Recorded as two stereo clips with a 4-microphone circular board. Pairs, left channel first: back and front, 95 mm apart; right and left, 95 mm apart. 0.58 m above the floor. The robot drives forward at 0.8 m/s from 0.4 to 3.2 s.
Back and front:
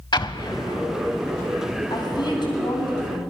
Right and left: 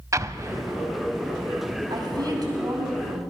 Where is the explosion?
145° left, 0.6 m; by 0.8 s 155° left, 0.9 m.